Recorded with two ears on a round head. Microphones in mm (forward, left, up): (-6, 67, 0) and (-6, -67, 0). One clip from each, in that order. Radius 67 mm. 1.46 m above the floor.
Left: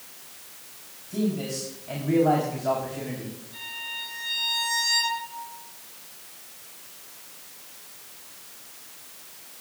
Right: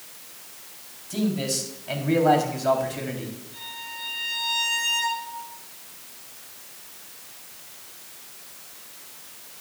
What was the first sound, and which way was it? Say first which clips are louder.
A man speaking: right 2 dB; 85° right.